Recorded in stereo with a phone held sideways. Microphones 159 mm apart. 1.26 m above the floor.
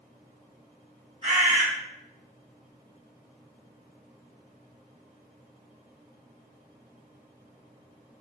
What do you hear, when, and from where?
1.2 s a bird: 45° right (ahead or behind), 1.6 m